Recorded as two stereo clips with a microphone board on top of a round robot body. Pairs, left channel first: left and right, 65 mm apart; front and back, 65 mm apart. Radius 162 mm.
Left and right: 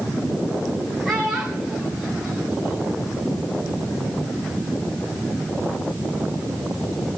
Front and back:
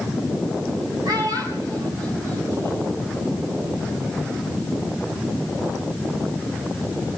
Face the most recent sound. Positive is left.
turn(degrees=175)